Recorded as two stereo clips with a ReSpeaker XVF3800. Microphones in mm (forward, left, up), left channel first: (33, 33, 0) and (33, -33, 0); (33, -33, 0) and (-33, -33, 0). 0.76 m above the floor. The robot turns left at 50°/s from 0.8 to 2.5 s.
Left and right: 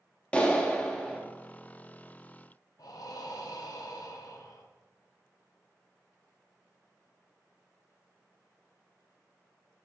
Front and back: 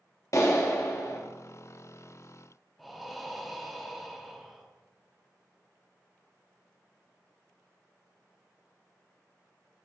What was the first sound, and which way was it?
A clap, 20° left.